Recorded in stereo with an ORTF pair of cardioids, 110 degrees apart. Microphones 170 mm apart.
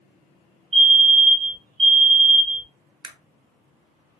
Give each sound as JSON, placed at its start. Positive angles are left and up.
{"t": 0.7, "sound": "a fire alarm", "azimuth_deg": -40, "distance_m": 1.6}
{"t": 3.0, "sound": "a camera shutter", "azimuth_deg": -25, "distance_m": 0.8}